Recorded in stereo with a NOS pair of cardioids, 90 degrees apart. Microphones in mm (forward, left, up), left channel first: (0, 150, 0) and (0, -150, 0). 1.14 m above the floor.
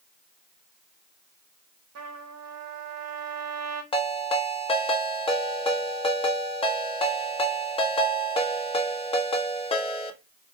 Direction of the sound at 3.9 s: 20° left.